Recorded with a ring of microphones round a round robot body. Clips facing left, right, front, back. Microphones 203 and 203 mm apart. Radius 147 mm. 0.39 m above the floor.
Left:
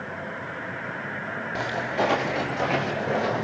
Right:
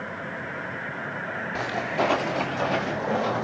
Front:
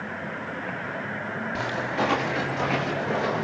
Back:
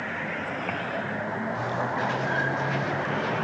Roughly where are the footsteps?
Ahead.